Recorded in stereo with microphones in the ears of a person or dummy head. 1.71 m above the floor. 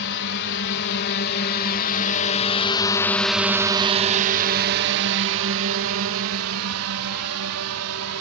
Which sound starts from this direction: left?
A drone, at 0.0 s.